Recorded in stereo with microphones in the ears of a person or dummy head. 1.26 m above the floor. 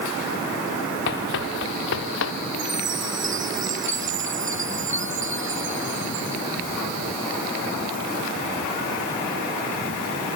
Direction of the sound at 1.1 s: 65° left (ahead or behind).